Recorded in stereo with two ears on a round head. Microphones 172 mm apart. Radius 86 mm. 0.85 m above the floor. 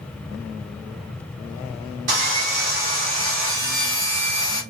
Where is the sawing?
45° right (ahead or behind), 2.5 m.